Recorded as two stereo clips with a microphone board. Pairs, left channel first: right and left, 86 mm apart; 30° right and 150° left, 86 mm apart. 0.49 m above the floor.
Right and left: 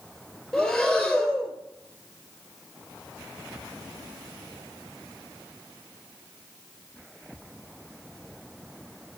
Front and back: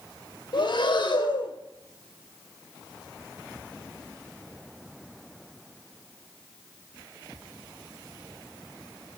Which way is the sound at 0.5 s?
5° right.